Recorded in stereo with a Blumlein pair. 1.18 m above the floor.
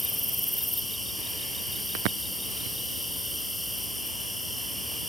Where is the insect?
Straight ahead, 0.8 m.